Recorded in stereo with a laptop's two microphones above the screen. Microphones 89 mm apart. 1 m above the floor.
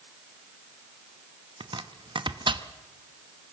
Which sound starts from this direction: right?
Chopping, at 1.6 s.